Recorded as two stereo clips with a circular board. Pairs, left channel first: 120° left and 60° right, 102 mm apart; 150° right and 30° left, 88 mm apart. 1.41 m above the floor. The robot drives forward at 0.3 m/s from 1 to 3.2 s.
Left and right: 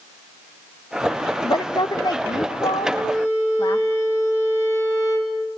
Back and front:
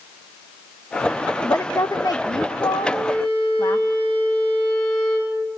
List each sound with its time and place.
1.4 s a woman speaking: 155° left, 0.5 m; by 3.8 s 170° left, 1.0 m
2.8 s a violin: 145° right, 7 m